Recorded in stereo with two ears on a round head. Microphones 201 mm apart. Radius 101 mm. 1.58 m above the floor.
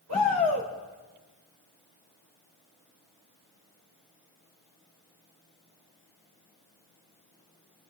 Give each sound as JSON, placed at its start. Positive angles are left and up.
{"t": 0.1, "sound": "a shout", "side_deg": -80, "distance_m": 5.0}